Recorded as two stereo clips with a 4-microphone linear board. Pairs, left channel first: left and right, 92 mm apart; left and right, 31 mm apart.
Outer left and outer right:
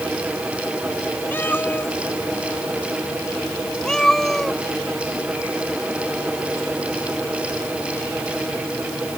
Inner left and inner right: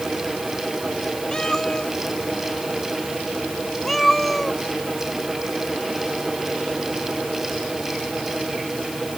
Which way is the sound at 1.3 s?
25° left (ahead or behind).